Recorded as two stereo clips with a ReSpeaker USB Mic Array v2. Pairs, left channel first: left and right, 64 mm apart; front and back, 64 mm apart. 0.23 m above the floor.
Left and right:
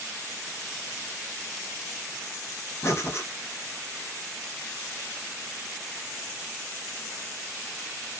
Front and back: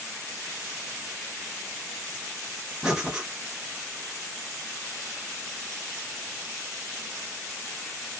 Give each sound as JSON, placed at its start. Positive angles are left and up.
{"t": 2.8, "sound": "breathing", "azimuth_deg": 105, "distance_m": 0.9}